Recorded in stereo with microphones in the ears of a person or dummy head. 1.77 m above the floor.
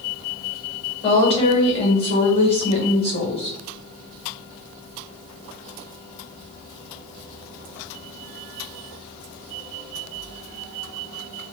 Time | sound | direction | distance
1.0 | a woman speaking | 35° left (ahead or behind) | 1.2 m